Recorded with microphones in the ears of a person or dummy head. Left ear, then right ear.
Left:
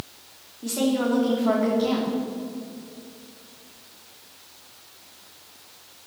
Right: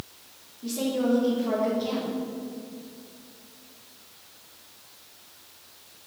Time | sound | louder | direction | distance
0.6 | a woman speaking | left 3 dB | 50° left (ahead or behind) | 3 m